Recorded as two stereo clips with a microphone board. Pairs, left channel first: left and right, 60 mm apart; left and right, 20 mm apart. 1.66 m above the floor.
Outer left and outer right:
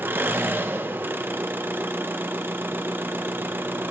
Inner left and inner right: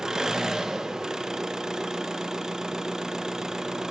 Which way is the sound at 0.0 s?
30° right (ahead or behind).